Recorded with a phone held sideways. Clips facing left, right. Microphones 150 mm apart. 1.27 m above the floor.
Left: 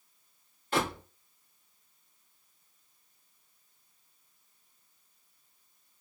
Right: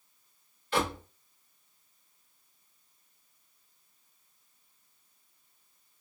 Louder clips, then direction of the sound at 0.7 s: Even; 45° left (ahead or behind).